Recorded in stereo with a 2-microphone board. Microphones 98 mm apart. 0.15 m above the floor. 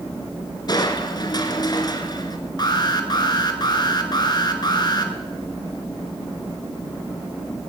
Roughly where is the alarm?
Left.